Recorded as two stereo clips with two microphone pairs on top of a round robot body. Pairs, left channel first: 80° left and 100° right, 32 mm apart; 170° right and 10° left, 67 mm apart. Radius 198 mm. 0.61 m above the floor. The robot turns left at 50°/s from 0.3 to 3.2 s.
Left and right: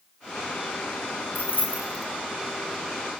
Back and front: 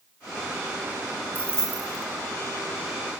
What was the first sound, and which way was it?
Keys jangling, 70° left.